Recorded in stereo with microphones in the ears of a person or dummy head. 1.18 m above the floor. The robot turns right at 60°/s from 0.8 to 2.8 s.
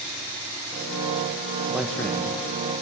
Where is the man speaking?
10° right (ahead or behind), 1.1 m; by 2.7 s 50° left (ahead or behind), 1.1 m.